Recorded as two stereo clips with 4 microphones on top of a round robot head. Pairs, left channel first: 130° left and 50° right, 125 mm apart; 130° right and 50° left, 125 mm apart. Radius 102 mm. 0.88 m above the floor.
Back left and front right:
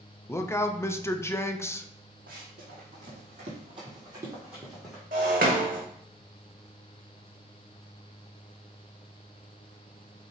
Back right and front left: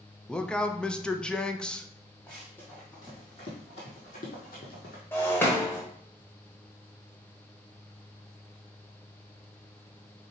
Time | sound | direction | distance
0.3 | a man speaking | 155° left | 0.6 m
2.3 | running footsteps | 50° right | 1.8 m
5.1 | breaking glass | 60° right | 0.7 m